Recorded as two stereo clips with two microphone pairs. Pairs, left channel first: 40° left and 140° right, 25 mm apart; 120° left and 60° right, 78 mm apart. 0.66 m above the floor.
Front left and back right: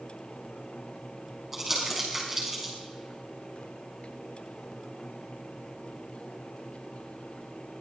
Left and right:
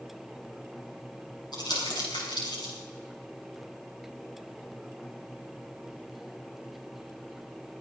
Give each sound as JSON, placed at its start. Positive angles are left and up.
{"t": 1.5, "sound": "crumpling", "azimuth_deg": 140, "distance_m": 6.0}